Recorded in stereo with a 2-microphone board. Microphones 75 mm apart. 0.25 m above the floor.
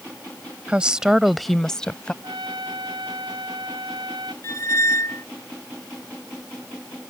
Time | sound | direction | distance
0.7 | a woman speaking | 15° right (ahead or behind) | ?
2.2 | a trumpet | 85° right | ?
4.4 | a squeak | 45° left (ahead or behind) | ?